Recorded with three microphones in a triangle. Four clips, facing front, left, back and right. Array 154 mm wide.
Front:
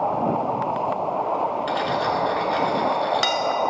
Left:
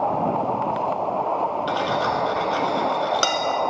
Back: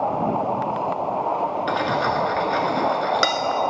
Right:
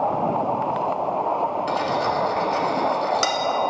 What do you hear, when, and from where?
1.7 s cutlery clinking: 165° left, 1.0 m